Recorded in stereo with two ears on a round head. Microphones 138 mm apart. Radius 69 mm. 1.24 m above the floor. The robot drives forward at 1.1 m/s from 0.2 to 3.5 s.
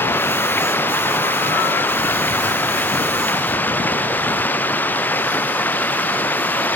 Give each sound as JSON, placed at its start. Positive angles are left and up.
{"t": 0.0, "sound": "running water", "side_deg": 15}